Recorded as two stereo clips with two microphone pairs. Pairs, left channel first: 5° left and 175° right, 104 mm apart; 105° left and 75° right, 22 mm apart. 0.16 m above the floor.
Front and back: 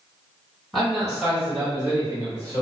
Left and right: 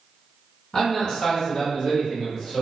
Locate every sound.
0.7 s a man speaking: 95° left, 1.6 m; by 2.6 s 155° left, 2 m